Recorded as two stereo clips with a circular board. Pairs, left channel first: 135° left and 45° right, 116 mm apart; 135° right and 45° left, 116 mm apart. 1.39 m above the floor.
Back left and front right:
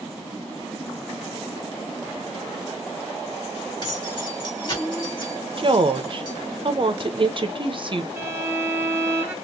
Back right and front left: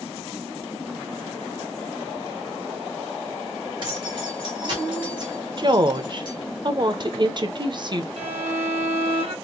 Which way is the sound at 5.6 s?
5° right.